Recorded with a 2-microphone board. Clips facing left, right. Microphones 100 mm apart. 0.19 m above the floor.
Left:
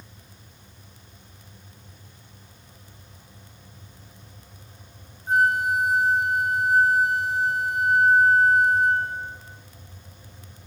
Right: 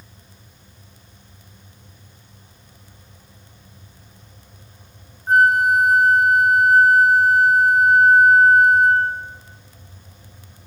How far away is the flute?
About 1.1 m.